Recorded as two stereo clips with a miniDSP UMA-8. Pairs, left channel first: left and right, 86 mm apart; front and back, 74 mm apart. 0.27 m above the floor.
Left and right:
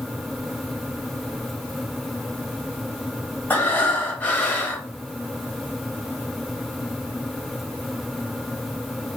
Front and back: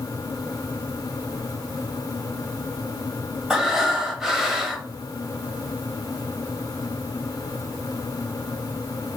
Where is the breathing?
105° left, 0.6 m.